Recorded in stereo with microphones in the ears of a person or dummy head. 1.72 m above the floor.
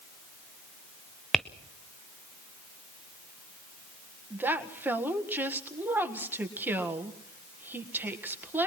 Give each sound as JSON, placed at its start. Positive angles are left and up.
{"t": 1.3, "sound": "tapping", "side_deg": -5, "distance_m": 0.8}
{"t": 4.3, "sound": "a woman speaking", "side_deg": -15, "distance_m": 1.6}